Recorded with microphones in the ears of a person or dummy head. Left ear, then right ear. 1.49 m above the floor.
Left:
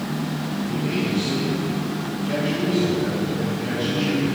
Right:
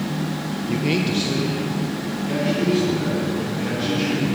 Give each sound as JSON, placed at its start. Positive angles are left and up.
{"t": 0.7, "sound": "a man speaking", "side_deg": -60, "distance_m": 0.7}